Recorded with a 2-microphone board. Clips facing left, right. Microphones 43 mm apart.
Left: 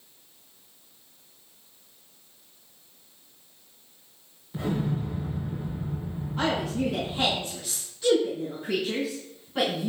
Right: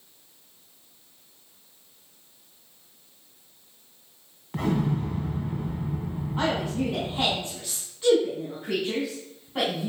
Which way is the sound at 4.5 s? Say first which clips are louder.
Right 3 dB; 75° right (ahead or behind).